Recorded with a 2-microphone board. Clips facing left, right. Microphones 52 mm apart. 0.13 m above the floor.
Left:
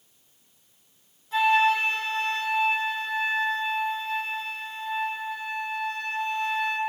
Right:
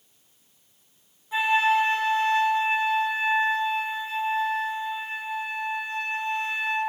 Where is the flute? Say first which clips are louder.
Left 1 dB; 10° right (ahead or behind), 1.2 m.